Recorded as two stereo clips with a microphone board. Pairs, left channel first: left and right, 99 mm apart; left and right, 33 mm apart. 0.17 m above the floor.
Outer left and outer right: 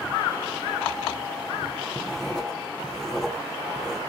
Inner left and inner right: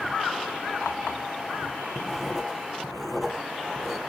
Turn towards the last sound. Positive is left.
turn(degrees=5)  # may be behind; listen again after turning